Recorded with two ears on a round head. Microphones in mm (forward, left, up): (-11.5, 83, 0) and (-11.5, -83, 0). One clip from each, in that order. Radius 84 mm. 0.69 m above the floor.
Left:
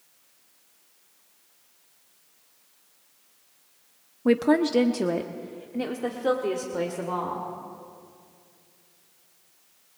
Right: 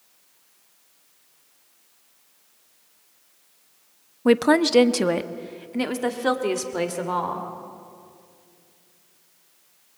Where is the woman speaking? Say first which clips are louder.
Right 4 dB; 25° right (ahead or behind), 0.6 m; by 7.5 s 40° right (ahead or behind), 2 m.